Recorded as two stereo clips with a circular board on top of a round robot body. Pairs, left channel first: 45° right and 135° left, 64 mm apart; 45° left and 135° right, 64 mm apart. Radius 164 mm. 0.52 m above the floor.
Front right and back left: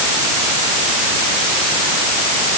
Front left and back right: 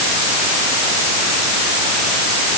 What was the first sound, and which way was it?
Only background noise.